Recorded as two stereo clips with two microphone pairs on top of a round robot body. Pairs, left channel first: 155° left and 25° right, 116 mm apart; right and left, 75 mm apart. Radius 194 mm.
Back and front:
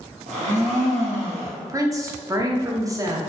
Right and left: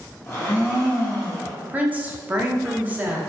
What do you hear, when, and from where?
0.3 s a blender: 25° right, 0.7 m
1.6 s a woman speaking: 30° left, 0.7 m